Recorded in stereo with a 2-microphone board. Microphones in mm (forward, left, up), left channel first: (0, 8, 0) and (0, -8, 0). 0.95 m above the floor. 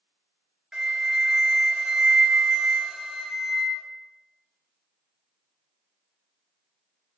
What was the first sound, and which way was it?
A flute, 40° right (ahead or behind).